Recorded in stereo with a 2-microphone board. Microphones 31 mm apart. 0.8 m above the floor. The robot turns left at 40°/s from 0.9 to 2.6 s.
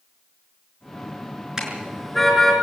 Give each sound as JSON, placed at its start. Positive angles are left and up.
{"t": 1.6, "sound": "a car horn", "side_deg": -20, "distance_m": 6.5}